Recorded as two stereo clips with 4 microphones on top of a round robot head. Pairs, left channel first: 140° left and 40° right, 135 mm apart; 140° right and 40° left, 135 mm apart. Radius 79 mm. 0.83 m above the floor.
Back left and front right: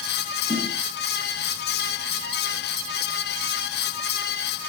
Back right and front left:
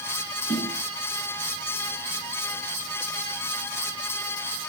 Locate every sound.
0.5 s a snare drum: 90° right, 4 m